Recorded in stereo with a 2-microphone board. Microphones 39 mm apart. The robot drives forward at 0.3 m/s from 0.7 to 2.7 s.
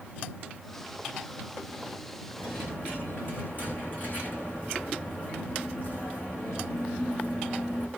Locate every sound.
2.4 s a dropped coin: 45° left (ahead or behind), 6.5 m